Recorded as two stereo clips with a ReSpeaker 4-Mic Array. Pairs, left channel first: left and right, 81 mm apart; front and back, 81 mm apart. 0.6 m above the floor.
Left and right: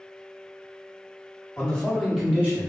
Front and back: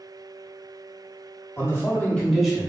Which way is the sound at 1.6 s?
20° left.